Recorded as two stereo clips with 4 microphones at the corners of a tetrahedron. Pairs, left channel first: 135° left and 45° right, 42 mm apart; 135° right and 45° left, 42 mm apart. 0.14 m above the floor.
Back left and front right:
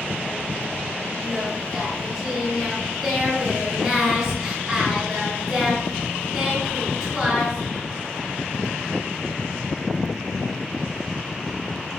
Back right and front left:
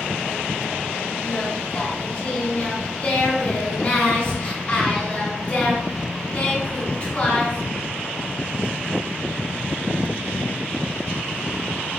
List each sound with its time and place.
1.2 s singing: 115° right, 1.9 m